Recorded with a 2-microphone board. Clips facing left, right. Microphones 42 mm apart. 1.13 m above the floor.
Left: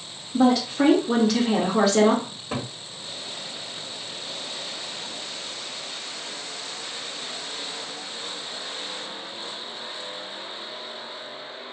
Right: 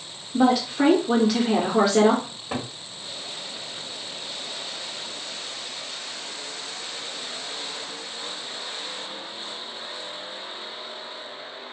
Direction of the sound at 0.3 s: 5° right (ahead or behind).